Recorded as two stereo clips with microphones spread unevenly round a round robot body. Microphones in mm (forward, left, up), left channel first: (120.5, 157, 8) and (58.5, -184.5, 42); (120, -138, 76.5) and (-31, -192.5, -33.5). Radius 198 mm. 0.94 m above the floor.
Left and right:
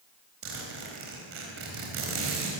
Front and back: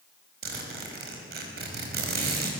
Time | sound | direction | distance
0.4 | a zipper | 160° right | 4.5 m